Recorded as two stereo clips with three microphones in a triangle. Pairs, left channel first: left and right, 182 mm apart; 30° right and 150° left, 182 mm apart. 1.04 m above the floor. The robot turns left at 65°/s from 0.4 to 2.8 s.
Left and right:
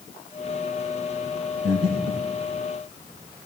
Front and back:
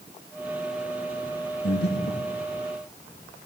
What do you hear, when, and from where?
1.6 s breathing: 20° right, 5 m; by 2.3 s 65° right, 5 m